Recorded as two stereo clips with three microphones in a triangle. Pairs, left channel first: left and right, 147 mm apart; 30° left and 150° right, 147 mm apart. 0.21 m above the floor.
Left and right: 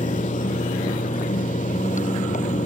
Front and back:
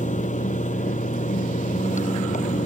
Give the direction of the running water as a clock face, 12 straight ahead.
10 o'clock.